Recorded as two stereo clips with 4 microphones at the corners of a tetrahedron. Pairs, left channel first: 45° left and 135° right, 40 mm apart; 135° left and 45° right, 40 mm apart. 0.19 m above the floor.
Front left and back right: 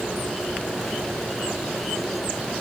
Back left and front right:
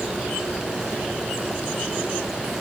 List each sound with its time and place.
Only background noise.